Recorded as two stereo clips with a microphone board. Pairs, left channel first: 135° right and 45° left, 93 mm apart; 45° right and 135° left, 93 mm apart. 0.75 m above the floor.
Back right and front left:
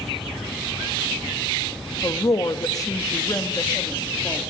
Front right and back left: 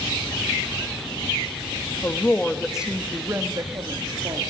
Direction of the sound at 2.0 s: 100° right.